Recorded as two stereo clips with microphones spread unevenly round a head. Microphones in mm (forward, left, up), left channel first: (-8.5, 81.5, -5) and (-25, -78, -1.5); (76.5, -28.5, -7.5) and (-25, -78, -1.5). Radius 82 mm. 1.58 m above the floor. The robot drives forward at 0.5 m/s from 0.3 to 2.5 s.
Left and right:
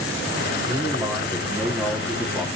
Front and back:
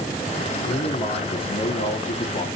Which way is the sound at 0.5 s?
5° right.